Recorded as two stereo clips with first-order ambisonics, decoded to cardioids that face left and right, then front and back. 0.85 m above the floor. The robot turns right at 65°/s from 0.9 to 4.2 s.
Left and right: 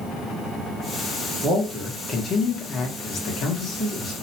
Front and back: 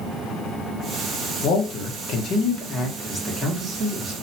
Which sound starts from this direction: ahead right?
A man speaking, at 1.4 s.